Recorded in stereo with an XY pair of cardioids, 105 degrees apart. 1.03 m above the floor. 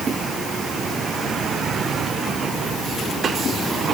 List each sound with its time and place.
Only background noise.